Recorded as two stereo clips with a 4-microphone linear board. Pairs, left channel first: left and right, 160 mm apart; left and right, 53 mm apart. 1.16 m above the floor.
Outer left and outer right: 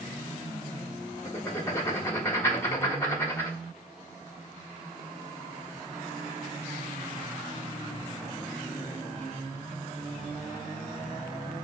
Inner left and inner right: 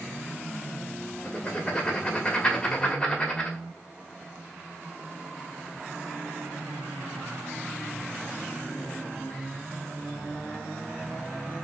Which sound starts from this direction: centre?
Writing, at 1.2 s.